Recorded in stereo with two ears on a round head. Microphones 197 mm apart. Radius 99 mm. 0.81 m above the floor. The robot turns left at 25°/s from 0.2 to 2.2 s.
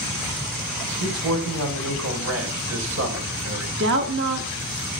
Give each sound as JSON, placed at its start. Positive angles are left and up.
{"t": 1.0, "sound": "a man speaking", "azimuth_deg": -85, "distance_m": 4.0}
{"t": 3.8, "sound": "a woman speaking", "side_deg": -55, "distance_m": 1.3}